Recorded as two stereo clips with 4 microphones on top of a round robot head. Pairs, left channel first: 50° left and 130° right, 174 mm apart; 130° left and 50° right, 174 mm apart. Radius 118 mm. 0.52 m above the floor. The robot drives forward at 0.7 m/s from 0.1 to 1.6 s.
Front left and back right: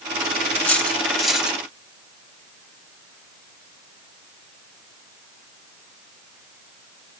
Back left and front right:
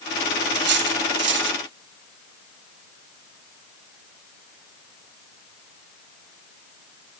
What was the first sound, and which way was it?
Cutlery clinking, 30° right.